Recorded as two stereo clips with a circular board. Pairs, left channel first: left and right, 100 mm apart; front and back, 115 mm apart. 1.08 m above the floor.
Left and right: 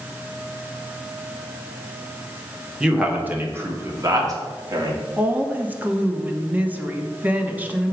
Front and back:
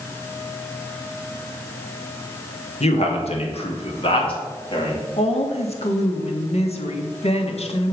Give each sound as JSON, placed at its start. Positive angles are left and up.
{"t": 2.8, "sound": "a man speaking", "azimuth_deg": -10, "distance_m": 1.5}
{"t": 5.2, "sound": "a woman speaking", "azimuth_deg": -20, "distance_m": 1.2}